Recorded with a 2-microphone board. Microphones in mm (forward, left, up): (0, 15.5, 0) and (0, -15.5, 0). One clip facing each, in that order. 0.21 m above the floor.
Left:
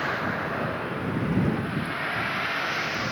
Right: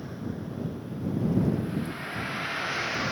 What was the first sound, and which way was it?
A vehicle, 90° left.